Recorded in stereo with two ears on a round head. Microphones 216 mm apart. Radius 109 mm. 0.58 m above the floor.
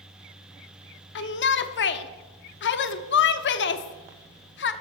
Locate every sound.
1.1 s a shout: 50° left (ahead or behind), 0.9 m